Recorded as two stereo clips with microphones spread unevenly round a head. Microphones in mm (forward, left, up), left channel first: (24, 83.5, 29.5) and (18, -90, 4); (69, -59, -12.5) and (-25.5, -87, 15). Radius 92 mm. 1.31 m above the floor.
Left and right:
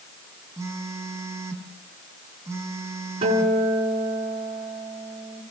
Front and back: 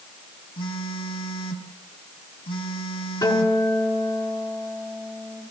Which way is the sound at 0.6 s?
15° right.